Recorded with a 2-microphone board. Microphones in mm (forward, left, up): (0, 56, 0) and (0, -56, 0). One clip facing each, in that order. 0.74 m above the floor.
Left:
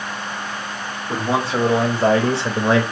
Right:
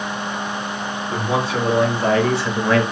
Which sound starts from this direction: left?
A man speaking, at 1.1 s.